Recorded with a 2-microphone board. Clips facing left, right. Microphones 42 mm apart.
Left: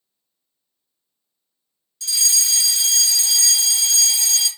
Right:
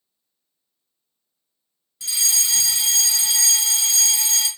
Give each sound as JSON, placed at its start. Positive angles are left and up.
{"t": 2.0, "sound": "a fire alarm", "side_deg": -20, "distance_m": 1.9}